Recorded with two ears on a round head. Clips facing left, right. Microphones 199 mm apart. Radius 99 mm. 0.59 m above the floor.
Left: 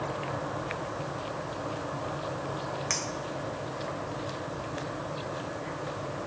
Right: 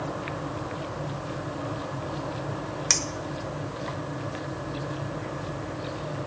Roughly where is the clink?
Right.